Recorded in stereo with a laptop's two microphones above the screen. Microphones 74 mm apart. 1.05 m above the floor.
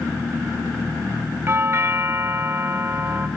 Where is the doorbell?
35° right (ahead or behind), 0.8 m.